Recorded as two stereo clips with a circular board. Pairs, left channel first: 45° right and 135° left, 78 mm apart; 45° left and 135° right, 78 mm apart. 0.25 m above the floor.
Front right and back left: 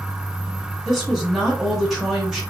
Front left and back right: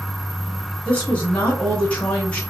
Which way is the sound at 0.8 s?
55° left.